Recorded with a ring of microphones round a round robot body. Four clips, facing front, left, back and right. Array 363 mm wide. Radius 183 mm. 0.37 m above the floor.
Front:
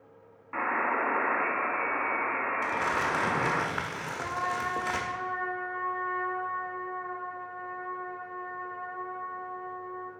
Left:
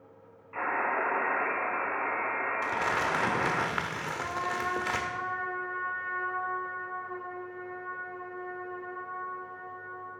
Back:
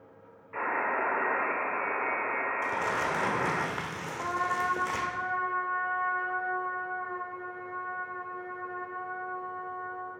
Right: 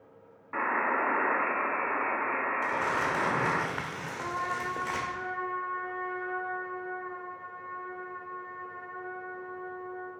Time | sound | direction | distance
0.5 | a buzzer | 55° right | 2 m
2.6 | crumpling | 75° left | 0.9 m
4.2 | a trumpet | 160° right | 1.5 m